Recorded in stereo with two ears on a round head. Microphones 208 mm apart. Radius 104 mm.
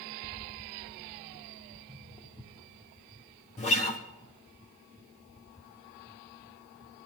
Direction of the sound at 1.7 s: 10° left (ahead or behind).